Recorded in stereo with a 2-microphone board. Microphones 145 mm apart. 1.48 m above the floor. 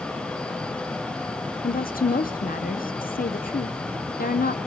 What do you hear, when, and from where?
1.6 s a woman speaking: 85° left, 1.0 m